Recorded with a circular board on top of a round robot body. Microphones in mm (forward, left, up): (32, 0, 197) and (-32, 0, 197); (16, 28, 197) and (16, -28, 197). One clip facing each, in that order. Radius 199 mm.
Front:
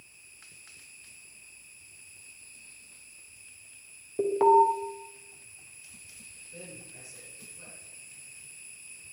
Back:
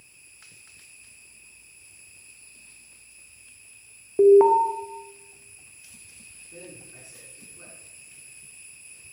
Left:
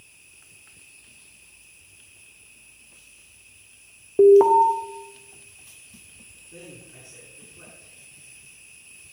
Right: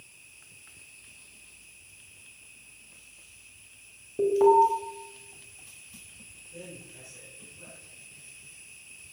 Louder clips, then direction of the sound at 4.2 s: Back 6 dB, left 7 dB; 115° left.